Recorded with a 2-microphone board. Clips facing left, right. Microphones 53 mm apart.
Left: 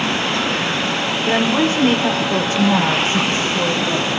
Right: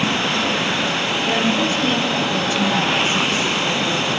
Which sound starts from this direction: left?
A woman speaking, at 1.3 s.